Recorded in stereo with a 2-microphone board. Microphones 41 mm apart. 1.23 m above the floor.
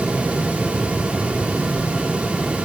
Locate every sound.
Only background noise.